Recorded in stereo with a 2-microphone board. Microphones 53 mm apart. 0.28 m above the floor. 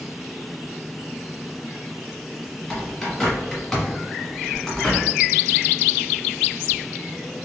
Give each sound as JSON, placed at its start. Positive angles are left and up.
{"t": 2.7, "sound": "a bird", "side_deg": 10, "distance_m": 1.3}